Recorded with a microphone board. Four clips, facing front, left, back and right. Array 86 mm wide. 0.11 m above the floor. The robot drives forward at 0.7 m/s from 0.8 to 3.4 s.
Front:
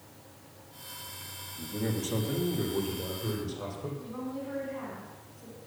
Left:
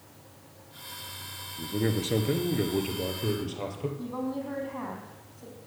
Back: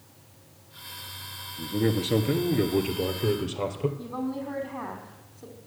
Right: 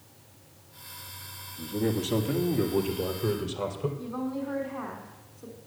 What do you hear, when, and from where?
1.6 s a man speaking: 130° left, 1.4 m; by 3.9 s 160° left, 2.5 m
4.0 s a woman speaking: 150° left, 4.5 m